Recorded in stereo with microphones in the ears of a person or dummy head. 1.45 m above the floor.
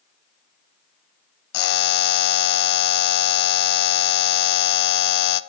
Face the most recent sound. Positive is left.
turn(degrees=60)  # may be behind; listen again after turning